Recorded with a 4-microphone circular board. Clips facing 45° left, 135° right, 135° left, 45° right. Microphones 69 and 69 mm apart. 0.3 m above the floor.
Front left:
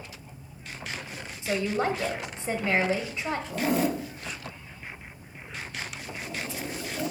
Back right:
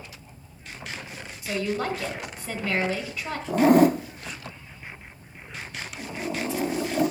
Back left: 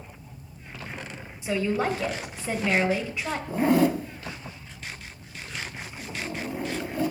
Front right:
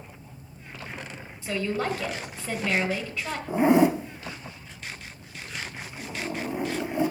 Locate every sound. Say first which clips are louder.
1.4 s a woman speaking: front left 1 dB, back left 2 dB; 80° left, 1.5 m
3.5 s a zipper: back right 11 dB, front right 2 dB; 110° right, 0.5 m